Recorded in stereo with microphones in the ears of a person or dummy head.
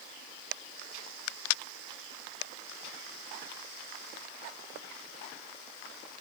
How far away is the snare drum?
No snare drum in this recording.